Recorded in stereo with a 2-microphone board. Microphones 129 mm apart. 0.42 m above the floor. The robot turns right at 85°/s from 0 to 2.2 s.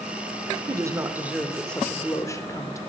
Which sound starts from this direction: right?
A woman speaking, at 0.7 s.